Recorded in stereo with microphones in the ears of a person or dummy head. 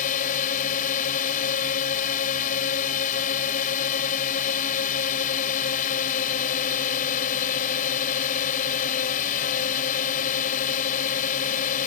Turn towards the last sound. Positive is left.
turn(degrees=50)  # may be behind; listen again after turning